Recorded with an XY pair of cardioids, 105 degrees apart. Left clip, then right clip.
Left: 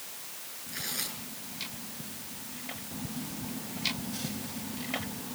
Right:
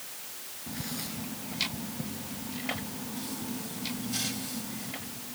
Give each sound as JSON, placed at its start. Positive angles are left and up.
{"t": 0.7, "sound": "tearing paper", "azimuth_deg": 45, "distance_m": 9.5}